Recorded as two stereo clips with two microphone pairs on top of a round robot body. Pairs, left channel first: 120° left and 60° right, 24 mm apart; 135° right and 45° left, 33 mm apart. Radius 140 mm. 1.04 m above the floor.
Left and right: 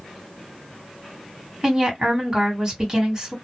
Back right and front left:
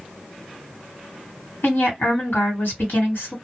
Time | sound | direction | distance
1.6 | a woman speaking | 125° right | 1.6 m